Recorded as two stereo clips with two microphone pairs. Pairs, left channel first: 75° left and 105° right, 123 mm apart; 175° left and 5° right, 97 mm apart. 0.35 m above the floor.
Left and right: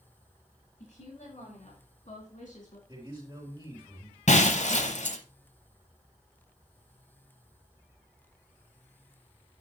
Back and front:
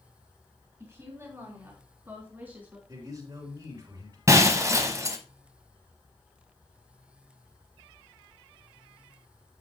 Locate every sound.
0.8 s a woman speaking: 55° left, 4 m; by 2.8 s 70° left, 2.5 m
2.9 s a man speaking: 55° right, 3 m
4.3 s breaking glass: 50° left, 0.9 m